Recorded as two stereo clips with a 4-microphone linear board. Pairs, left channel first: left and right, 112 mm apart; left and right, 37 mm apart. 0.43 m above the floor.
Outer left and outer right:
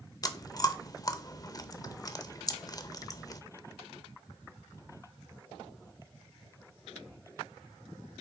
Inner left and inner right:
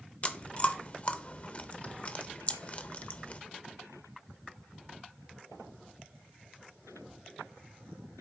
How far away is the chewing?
About 0.5 m.